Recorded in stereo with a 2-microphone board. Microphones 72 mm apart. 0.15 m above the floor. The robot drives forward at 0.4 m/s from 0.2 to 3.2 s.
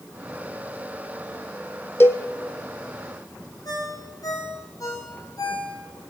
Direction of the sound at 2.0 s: 35° left (ahead or behind).